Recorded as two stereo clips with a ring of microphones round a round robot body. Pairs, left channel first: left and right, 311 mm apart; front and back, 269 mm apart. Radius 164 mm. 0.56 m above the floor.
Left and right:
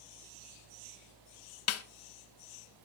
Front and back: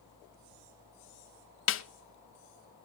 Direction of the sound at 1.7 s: 45° left.